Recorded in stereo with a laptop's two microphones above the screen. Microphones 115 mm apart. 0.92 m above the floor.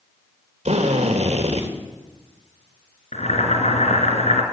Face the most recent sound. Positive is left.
turn(degrees=80)